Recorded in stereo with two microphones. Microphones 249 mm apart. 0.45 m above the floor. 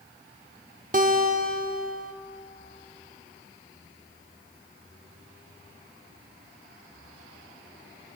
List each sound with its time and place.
0.9 s a guitar: 35° right (ahead or behind), 0.8 m